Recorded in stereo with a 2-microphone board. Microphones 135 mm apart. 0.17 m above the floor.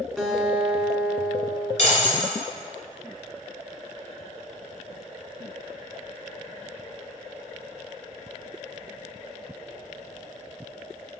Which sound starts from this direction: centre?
A guitar, at 0.2 s.